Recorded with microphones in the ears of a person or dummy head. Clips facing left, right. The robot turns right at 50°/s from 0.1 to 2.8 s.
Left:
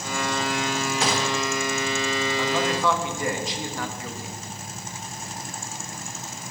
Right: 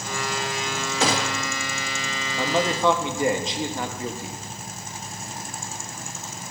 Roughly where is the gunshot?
Right.